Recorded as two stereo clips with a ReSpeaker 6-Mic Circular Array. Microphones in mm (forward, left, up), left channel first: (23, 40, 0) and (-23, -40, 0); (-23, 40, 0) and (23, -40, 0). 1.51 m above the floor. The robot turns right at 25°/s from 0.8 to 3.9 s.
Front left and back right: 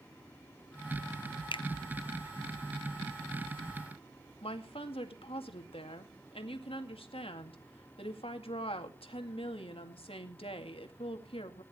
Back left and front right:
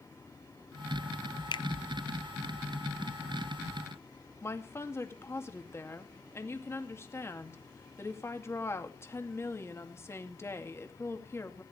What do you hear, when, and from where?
1.5 s a finger snap: 85° left, 0.6 m; by 1.6 s 90° left, 0.6 m
4.4 s a woman speaking: 60° left, 2 m